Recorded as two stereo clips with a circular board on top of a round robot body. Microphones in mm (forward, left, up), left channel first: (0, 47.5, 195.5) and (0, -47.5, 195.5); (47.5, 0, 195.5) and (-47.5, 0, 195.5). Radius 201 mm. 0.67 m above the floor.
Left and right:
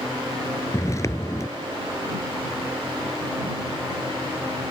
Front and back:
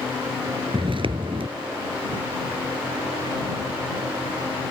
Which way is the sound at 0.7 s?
150° left.